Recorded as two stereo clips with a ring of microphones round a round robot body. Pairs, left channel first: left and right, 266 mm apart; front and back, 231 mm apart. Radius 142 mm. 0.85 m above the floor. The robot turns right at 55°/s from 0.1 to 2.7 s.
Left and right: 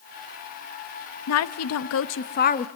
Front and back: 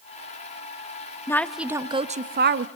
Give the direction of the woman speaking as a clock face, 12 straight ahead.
9 o'clock.